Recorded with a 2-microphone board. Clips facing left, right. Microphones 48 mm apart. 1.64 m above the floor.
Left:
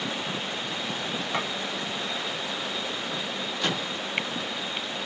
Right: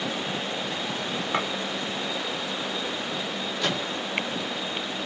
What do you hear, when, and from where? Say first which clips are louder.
1.3 s a clink: right 3 dB; 20° right (ahead or behind), 1.4 m
3.6 s a microwave: right 1 dB; 5° left (ahead or behind), 2.5 m